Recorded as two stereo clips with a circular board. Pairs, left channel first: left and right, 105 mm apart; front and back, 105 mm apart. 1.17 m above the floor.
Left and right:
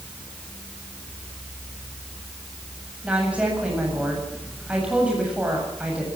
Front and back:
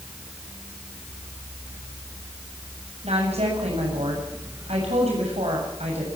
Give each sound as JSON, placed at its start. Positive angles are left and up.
{"t": 3.0, "sound": "a woman speaking", "azimuth_deg": -170, "distance_m": 7.5}